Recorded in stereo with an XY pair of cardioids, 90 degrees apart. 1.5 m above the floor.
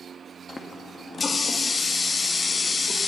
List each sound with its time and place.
0.5 s a running tap: 35° left, 1.7 m